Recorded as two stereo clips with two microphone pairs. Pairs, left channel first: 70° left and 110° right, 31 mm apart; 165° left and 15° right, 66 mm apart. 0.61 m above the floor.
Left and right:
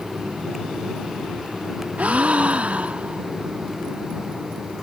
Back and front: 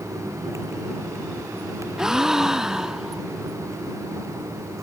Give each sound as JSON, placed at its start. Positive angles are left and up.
{"t": 2.0, "sound": "a gasp", "azimuth_deg": -95}